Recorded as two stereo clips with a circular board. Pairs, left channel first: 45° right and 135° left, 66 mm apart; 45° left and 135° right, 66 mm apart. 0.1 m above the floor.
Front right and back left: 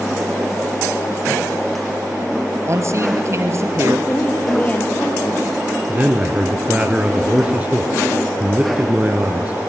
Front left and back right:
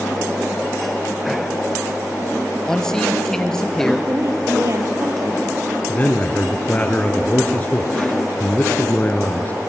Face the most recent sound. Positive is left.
turn(degrees=85)